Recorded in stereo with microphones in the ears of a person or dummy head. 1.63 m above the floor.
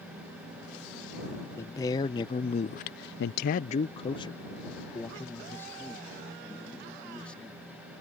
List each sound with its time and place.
1.6 s a man speaking: 25° left (ahead or behind); by 7.8 s 5° left (ahead or behind)